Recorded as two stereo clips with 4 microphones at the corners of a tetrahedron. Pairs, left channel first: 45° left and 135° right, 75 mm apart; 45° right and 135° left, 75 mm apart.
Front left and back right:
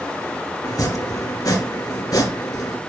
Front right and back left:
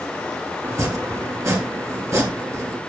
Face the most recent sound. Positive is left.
turn(degrees=85)